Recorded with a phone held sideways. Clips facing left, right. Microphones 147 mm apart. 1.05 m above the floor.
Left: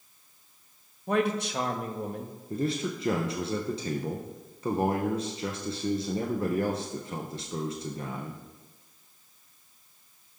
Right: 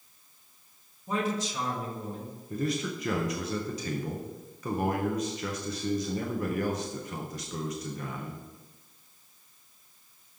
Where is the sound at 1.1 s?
65° left (ahead or behind), 0.9 m.